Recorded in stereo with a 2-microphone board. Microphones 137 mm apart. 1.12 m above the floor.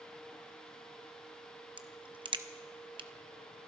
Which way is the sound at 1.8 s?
40° right (ahead or behind).